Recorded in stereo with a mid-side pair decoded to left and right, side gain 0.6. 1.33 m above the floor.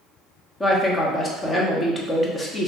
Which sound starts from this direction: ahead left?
A woman speaking, at 0.6 s.